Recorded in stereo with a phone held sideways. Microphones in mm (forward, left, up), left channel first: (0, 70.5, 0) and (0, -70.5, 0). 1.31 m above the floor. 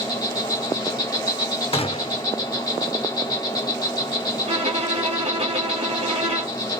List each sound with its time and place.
0.0 s an insect: 25° left (ahead or behind), 1.8 m
1.7 s a gunshot: 45° left (ahead or behind), 0.6 m
4.5 s a violin: 50° right (ahead or behind), 1.8 m